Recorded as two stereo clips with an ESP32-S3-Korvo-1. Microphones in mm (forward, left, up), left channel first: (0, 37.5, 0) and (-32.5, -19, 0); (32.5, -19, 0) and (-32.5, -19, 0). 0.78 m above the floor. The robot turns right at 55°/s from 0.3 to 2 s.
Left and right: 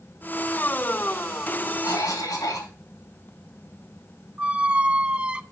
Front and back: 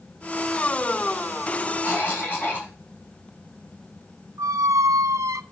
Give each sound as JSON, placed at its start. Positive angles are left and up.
{"t": 1.8, "sound": "a cough", "azimuth_deg": 50, "distance_m": 5.0}
{"t": 4.4, "sound": "a squeak", "azimuth_deg": 175, "distance_m": 0.5}